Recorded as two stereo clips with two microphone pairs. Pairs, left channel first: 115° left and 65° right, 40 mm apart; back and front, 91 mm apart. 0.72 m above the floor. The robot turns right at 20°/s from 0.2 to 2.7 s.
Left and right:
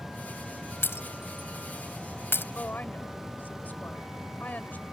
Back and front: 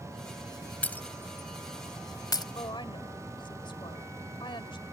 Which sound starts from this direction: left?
Breaking glass, at 0.8 s.